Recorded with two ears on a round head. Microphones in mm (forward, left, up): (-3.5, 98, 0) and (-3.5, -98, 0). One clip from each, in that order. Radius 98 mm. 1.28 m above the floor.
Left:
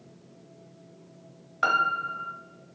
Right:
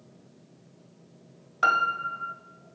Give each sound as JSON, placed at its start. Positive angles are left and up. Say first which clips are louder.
{"t": 1.6, "sound": "a piano", "louder": "right 1 dB", "side_deg": -10, "distance_m": 1.1}